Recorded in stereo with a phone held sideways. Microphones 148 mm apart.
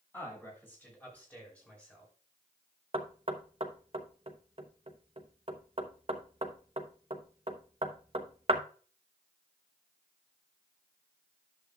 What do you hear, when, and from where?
0.1 s a man speaking: 15° left (ahead or behind), 6 m; by 2.1 s 5° left (ahead or behind), 4.5 m
2.9 s knocking: 40° right (ahead or behind), 0.9 m